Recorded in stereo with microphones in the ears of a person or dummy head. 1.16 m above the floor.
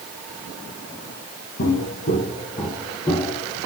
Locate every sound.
1.6 s footsteps: 50° left (ahead or behind), 2.5 m; by 3.6 s 10° left (ahead or behind), 4.5 m